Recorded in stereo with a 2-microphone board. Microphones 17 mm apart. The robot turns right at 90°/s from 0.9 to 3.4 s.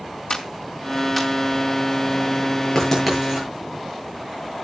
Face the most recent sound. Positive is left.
turn(degrees=-35)  # may be behind; listen again after turning